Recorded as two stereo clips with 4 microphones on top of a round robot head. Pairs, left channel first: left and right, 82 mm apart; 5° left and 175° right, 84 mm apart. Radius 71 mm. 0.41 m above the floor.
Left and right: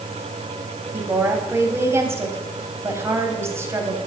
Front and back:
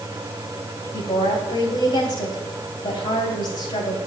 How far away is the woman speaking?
About 3.5 m.